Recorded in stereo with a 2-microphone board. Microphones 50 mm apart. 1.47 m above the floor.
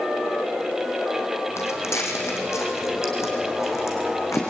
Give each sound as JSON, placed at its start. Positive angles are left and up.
{"t": 1.6, "sound": "footsteps", "side_deg": 70, "distance_m": 4.0}